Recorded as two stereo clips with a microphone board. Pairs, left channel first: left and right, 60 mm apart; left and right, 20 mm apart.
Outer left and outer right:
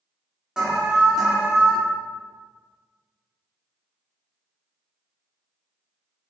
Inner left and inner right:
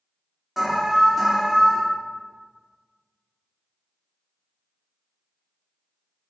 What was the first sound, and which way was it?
An alarm, 15° right (ahead or behind).